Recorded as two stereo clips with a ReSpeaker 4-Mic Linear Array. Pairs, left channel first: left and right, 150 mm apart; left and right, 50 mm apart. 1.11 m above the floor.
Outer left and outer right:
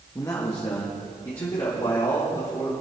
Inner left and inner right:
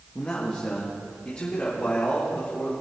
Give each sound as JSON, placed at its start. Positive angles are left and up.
{"t": 0.1, "sound": "a man speaking", "side_deg": 20, "distance_m": 1.3}